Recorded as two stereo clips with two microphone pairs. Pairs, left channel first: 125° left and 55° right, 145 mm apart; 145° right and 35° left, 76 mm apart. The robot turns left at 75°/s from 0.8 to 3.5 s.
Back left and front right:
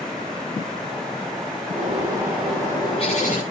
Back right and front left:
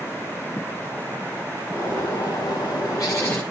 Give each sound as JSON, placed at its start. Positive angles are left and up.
{"t": 1.7, "sound": "a bird", "azimuth_deg": -90, "distance_m": 7.0}